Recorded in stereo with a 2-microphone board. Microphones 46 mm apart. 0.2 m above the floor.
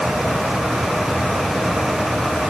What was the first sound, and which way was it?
Only background noise.